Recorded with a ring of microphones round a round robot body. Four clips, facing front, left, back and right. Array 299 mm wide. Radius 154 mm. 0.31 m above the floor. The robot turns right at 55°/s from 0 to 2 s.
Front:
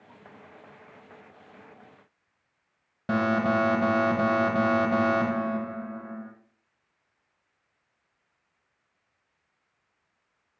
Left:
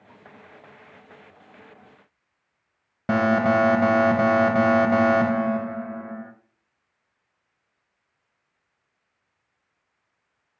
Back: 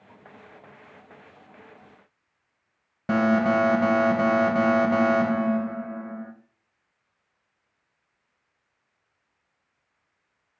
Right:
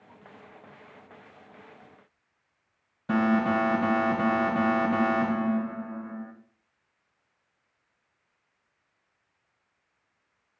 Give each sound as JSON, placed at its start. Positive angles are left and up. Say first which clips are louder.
{"t": 3.1, "sound": "an alarm", "louder": "left 4 dB, back 3 dB", "azimuth_deg": 100, "distance_m": 1.5}